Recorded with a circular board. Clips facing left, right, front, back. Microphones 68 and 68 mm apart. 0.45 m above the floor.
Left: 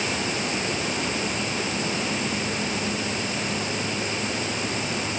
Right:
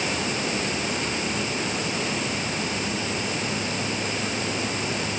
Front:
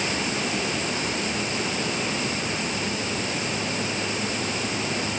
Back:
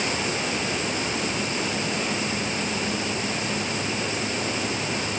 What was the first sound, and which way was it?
Only background noise.